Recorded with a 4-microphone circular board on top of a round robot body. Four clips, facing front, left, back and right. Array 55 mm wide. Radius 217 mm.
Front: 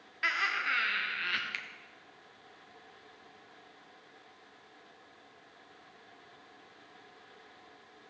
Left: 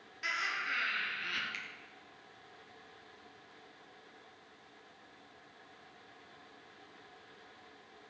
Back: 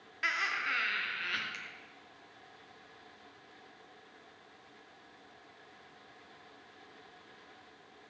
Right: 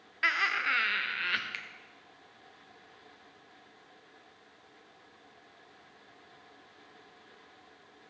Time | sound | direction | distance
0.2 | laughter | 85° right | 1.5 m
1.5 | a finger snap | 30° right | 1.4 m